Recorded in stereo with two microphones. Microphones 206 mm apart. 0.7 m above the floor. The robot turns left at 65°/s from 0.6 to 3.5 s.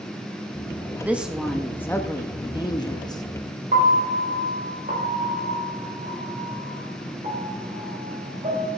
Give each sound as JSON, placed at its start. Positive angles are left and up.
{"t": 1.0, "sound": "a woman speaking", "side_deg": -10, "distance_m": 0.7}
{"t": 3.7, "sound": "a piano", "side_deg": -40, "distance_m": 3.5}